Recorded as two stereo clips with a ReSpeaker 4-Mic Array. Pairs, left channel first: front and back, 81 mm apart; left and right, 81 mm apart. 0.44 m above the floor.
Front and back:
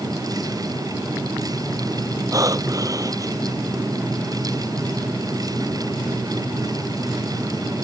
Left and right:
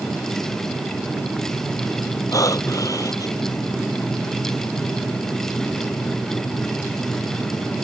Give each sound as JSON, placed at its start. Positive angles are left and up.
{"t": 2.3, "sound": "breathing", "azimuth_deg": 135}